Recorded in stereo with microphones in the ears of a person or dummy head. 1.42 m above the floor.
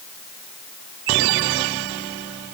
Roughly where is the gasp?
No gasp in this recording.